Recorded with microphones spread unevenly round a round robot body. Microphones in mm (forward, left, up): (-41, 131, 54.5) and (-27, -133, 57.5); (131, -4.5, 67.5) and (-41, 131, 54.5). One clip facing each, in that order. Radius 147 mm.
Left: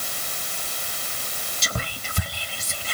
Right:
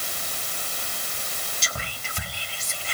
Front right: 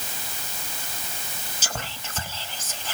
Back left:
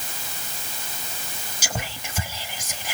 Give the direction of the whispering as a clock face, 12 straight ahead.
10 o'clock.